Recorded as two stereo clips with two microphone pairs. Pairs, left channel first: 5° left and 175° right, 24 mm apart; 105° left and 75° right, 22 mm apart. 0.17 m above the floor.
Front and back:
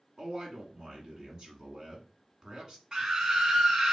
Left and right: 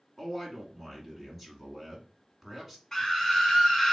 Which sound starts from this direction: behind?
A man speaking, at 0.2 s.